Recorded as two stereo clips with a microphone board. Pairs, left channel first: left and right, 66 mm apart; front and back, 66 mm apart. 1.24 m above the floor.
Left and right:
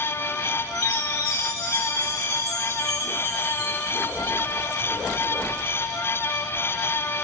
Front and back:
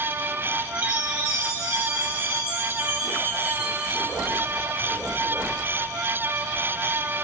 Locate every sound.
0.8 s a chime: 110° left, 3 m